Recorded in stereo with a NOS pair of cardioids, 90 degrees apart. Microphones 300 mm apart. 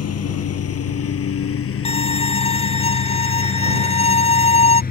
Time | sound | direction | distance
0.0 | a lawn mower | 55° left | ?
1.9 | a violin | 20° left | ?